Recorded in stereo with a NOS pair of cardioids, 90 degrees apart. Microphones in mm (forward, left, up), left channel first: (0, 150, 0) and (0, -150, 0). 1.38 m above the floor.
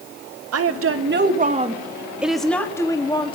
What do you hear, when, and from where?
0.5 s a woman speaking: 55° right, 2.5 m; by 3.4 s 20° left, 3.5 m